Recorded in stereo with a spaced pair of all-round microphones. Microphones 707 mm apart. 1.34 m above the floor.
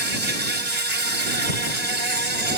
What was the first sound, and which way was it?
An insect, 65° right (ahead or behind).